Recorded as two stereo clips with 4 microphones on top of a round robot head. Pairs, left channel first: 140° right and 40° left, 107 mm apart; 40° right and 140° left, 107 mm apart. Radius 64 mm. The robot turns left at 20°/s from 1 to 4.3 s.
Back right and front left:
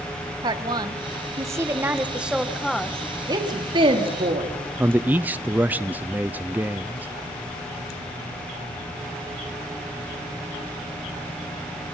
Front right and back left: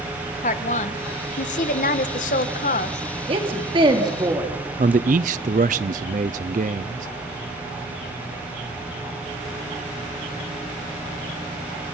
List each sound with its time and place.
0.4 s a woman speaking: 15° right, 1.7 m; by 3.2 s 60° right, 1.7 m
3.3 s a woman speaking: 100° left, 4 m; by 4.5 s 80° left, 4 m
4.8 s a man speaking: 115° left, 0.6 m